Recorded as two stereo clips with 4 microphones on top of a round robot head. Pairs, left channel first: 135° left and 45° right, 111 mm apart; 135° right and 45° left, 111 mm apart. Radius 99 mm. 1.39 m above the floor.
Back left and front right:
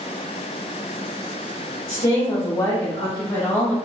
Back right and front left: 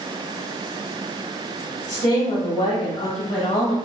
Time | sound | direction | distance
1.9 | a woman speaking | 175° left | 1.8 m